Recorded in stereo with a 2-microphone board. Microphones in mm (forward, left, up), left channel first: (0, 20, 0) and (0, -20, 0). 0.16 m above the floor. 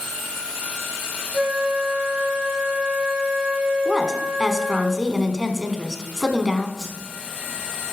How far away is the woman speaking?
About 1.2 m.